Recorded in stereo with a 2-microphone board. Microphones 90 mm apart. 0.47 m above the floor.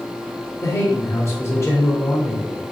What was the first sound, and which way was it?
A man speaking, 30° left (ahead or behind).